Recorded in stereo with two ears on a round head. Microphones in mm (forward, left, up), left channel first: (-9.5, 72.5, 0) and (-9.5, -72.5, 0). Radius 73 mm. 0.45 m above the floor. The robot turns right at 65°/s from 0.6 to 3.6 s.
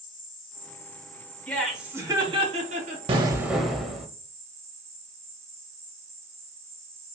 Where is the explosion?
35° right, 0.5 m; by 4.1 s straight ahead, 0.5 m.